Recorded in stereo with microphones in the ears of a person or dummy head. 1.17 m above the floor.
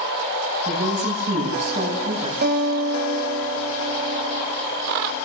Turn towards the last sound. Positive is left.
turn(degrees=-50)  # may be behind; listen again after turning